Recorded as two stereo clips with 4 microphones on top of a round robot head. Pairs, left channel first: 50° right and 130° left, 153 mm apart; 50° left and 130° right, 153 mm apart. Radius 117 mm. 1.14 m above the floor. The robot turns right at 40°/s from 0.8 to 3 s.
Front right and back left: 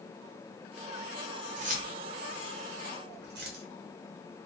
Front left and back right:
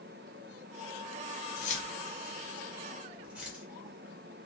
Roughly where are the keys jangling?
Left.